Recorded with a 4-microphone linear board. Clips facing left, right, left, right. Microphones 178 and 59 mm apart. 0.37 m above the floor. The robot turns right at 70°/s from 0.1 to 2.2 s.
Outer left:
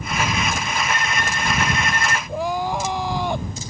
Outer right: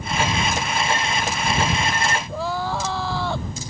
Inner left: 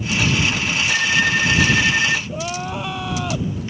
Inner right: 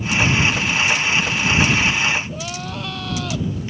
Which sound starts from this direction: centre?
Crying, at 2.3 s.